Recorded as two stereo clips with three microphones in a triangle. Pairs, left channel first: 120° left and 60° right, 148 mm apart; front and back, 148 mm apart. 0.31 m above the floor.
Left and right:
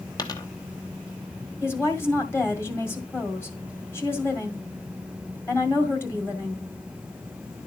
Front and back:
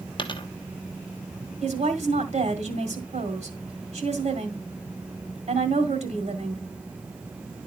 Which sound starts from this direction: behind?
A woman speaking, at 1.6 s.